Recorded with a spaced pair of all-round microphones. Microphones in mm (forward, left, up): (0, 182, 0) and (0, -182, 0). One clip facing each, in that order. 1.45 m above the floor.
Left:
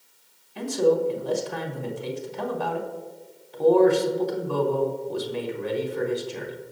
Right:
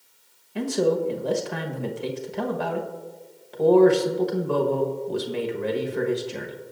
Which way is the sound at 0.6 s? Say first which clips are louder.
Left 1 dB; 75° right (ahead or behind).